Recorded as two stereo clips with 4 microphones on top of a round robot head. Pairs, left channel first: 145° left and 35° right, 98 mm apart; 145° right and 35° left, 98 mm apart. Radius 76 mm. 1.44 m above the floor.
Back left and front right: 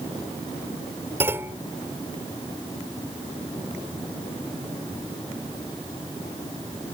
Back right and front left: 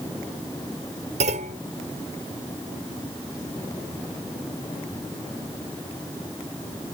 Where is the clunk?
35° left.